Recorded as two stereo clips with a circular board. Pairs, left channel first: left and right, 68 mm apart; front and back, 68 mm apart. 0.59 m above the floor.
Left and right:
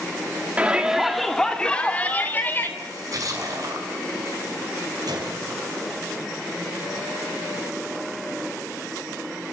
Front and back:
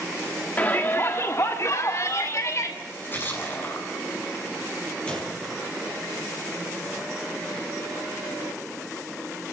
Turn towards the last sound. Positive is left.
turn(degrees=-75)